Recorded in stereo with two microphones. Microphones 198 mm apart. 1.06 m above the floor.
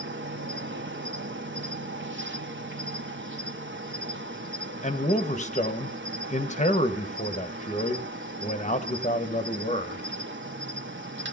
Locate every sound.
0.0 s an insect: 85° right, 1.0 m
4.8 s a man speaking: 40° left (ahead or behind), 1.1 m